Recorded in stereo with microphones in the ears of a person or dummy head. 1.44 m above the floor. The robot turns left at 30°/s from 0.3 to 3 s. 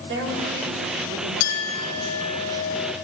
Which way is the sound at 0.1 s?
65° right.